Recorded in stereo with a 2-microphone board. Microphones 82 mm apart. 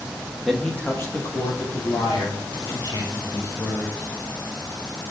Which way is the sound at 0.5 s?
Centre (ahead or behind).